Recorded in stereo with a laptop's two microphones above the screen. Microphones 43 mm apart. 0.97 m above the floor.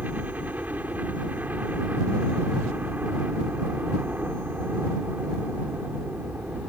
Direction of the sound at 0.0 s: 40° right (ahead or behind).